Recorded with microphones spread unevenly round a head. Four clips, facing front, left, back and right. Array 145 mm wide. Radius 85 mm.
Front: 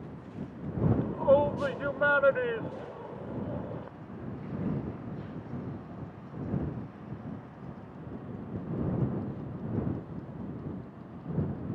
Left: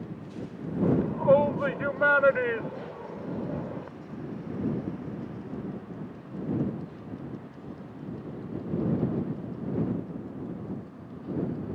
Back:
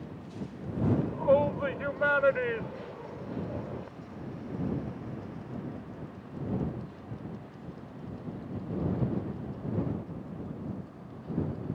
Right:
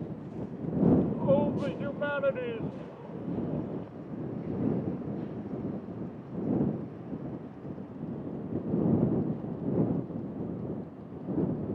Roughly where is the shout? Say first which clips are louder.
Left 2 dB, even; left.